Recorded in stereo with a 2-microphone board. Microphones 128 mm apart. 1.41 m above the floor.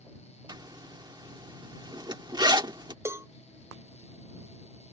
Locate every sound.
0.5 s a zipper: 35° right (ahead or behind)
3.0 s a cowbell: 20° right (ahead or behind)